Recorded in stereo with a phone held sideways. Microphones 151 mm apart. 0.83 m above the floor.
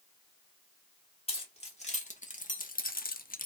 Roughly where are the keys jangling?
Left.